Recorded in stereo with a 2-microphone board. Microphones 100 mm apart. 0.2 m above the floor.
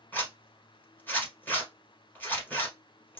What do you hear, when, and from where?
0.1 s a zipper: 20° left (ahead or behind), 1.4 m